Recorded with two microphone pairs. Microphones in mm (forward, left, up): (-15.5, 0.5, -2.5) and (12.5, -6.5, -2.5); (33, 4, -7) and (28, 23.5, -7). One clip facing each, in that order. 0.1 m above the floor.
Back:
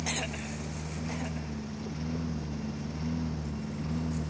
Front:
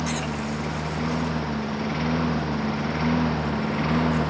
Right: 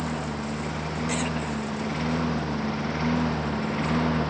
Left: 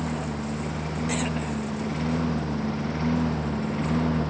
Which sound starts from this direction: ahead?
A lawn mower, at 0.0 s.